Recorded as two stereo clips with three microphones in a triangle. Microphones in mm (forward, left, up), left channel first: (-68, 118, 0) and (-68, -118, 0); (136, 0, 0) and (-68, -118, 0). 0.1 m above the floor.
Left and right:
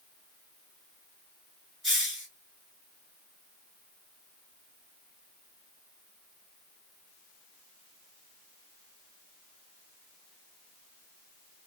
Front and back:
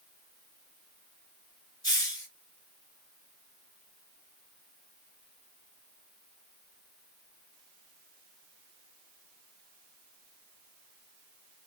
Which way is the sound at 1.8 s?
Straight ahead.